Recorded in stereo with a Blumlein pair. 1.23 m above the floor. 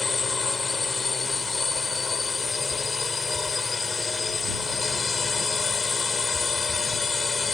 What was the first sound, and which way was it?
A drone, 10° left.